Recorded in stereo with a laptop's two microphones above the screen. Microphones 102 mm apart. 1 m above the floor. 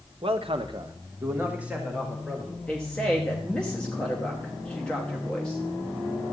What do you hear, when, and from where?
0.2 s a man speaking: 65° right (ahead or behind), 1.0 m; by 2.6 s 5° left (ahead or behind), 2.5 m
2.7 s a woman speaking: 10° left (ahead or behind), 1.1 m